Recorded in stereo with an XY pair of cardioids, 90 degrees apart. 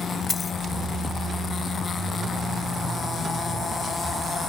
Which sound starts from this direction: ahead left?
A dropped coin, at 0.3 s.